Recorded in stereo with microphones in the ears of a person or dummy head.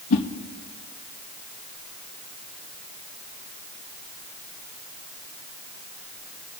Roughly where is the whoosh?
Left.